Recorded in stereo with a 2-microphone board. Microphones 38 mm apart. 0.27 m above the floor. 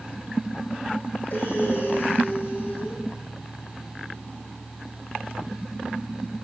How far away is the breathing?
About 9.5 m.